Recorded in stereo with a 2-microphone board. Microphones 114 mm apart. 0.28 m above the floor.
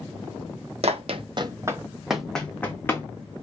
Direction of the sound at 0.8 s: 70° right (ahead or behind).